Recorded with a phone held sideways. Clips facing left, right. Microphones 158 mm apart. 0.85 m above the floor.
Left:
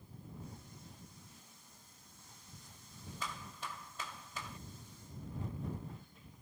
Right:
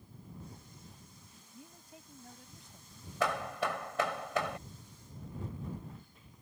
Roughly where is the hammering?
Right.